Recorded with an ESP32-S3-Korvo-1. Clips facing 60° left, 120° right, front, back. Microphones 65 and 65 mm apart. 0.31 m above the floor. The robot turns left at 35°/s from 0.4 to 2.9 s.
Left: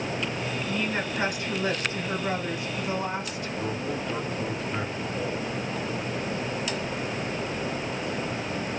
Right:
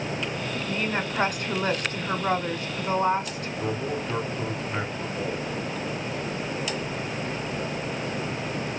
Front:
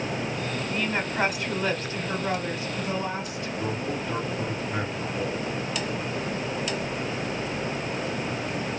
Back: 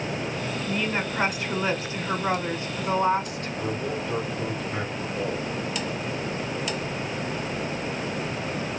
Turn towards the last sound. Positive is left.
turn(degrees=-80)